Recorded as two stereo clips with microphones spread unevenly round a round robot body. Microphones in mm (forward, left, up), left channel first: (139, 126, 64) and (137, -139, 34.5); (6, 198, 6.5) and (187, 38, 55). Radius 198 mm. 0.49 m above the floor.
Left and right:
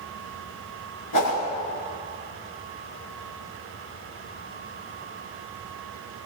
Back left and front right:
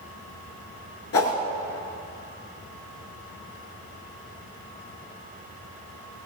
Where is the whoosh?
115° left, 2.5 m.